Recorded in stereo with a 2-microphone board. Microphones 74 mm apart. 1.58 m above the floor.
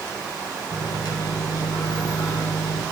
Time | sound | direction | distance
0.7 | a microwave | 65° left (ahead or behind) | 5.5 m